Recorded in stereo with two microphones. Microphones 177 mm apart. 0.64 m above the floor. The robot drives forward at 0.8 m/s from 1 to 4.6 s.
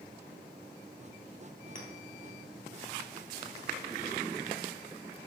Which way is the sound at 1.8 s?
45° left (ahead or behind).